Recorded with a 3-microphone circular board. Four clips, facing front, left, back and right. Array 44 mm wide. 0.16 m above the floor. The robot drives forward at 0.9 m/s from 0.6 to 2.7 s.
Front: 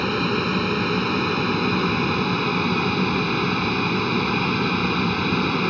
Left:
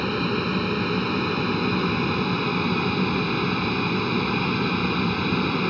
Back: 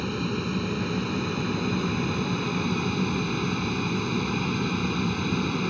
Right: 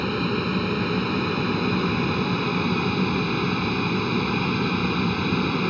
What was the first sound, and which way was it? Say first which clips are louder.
An aircraft: even, front 7 dB; straight ahead.